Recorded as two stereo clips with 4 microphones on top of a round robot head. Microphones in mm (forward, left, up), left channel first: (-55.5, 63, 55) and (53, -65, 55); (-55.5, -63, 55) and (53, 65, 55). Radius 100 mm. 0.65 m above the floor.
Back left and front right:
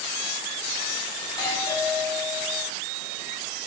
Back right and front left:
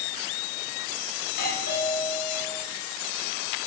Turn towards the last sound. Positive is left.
turn(degrees=-165)